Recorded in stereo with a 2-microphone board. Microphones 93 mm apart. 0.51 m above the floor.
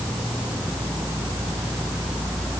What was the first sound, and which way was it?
Only background noise.